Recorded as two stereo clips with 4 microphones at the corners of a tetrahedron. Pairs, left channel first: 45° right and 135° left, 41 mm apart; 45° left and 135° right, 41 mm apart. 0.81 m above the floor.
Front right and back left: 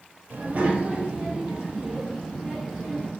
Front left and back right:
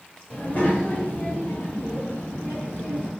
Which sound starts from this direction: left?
A child speaking, at 0.3 s.